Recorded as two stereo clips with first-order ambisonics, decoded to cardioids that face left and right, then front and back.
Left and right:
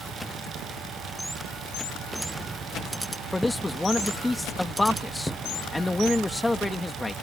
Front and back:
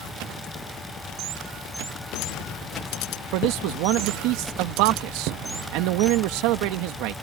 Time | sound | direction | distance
3.3 | a man speaking | 170° left | ?